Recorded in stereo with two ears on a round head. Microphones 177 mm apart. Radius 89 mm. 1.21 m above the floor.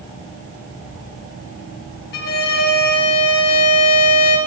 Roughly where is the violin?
Left.